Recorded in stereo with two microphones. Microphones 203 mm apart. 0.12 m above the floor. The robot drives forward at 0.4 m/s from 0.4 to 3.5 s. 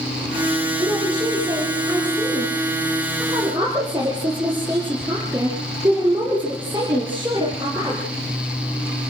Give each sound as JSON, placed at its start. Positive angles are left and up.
{"t": 0.8, "sound": "a woman speaking", "side_deg": -20, "distance_m": 7.5}